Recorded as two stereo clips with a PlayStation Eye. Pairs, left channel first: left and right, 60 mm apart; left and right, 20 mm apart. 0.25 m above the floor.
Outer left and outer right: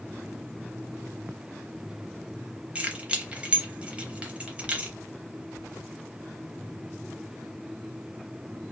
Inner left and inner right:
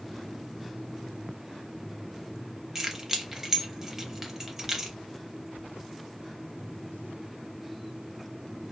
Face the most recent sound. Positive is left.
turn(degrees=-20)  # may be behind; listen again after turning